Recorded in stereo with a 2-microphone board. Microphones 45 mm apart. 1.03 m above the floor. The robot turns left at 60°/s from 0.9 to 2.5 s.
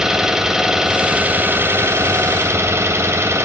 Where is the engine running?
10° right, 1.9 m; by 3.4 s 105° right, 1.9 m.